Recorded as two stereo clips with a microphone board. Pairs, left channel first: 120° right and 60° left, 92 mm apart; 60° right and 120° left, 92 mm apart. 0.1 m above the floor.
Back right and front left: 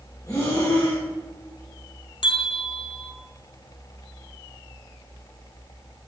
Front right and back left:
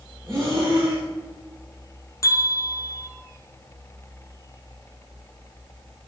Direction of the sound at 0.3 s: 175° right.